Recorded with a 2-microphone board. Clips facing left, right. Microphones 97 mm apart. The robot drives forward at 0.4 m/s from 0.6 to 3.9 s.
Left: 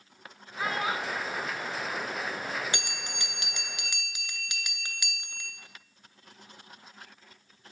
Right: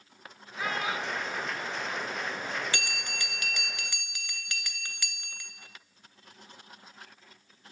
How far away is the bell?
About 0.6 m.